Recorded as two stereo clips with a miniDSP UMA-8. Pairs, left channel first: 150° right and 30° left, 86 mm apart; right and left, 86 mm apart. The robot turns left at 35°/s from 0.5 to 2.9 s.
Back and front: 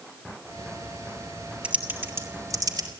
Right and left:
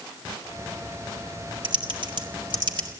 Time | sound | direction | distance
1.6 | typing on a keyboard | 105° left | 2.5 m